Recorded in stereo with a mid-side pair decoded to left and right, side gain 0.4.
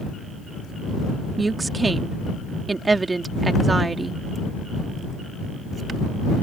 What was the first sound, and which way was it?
A woman speaking, 30° right.